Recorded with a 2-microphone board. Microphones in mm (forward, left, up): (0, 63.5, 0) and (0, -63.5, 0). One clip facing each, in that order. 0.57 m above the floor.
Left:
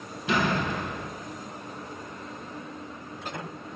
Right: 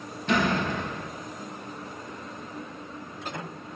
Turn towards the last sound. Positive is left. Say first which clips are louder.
# right 1 dB
turn(degrees=5)  # may be behind; listen again after turning